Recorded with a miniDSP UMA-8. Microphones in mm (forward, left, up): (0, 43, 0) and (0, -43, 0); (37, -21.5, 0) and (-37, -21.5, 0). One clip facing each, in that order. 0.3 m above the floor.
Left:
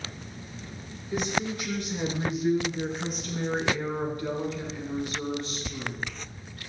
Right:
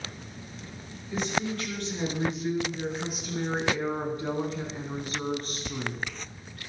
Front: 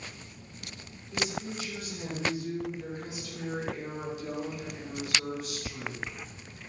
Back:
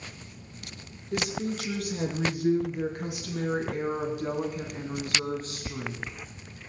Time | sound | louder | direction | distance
1.1 | a woman speaking | left 1 dB, back 4 dB | 165° left | 5 m